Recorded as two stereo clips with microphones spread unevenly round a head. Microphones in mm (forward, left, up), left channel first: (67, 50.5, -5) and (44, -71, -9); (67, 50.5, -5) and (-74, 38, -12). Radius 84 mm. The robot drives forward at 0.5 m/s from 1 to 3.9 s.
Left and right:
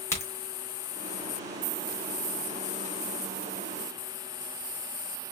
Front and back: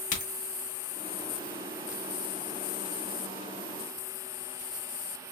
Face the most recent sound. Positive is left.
turn(degrees=35)